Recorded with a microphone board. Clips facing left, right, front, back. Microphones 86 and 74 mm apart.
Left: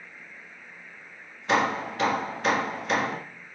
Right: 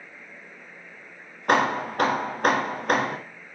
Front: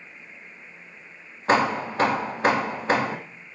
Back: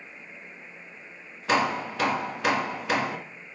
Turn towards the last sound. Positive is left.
turn(degrees=-50)